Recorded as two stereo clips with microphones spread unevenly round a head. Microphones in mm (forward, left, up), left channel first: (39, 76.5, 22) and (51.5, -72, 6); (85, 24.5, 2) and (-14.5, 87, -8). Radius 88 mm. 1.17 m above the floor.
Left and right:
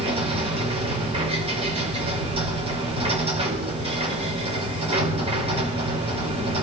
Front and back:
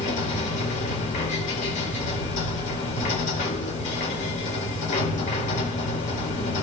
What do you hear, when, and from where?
0.0 s a machine running: 40° right, 6 m